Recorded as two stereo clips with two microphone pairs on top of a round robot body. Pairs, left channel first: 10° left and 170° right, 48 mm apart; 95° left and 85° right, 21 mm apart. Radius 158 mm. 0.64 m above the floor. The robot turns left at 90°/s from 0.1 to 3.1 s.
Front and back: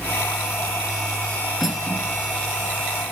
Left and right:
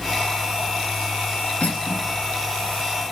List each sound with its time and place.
1.6 s cutlery clinking: 95° left, 7.5 m; by 2.1 s 50° left, 7.5 m